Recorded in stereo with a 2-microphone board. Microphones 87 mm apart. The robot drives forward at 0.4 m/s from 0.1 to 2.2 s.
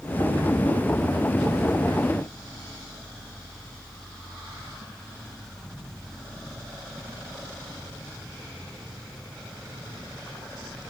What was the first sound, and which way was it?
Only background noise.